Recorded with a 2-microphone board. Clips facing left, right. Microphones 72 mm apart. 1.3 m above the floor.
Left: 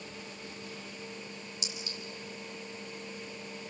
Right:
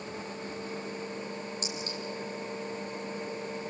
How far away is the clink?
About 5 m.